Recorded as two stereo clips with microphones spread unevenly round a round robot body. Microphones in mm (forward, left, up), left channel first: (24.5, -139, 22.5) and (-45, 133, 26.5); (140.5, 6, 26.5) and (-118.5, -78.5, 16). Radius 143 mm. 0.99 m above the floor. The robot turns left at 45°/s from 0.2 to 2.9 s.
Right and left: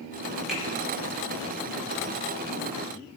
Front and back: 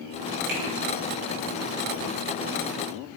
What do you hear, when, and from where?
0.5 s a finger snap: 165° right, 4 m; by 0.6 s 170° right, 4 m